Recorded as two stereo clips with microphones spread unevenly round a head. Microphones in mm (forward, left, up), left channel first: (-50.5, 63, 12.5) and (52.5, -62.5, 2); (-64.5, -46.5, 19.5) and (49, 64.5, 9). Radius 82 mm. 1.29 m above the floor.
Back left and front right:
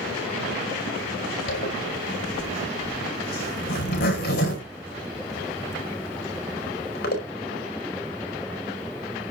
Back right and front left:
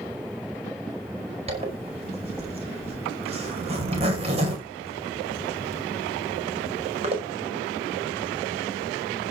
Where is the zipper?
95° left, 5 m.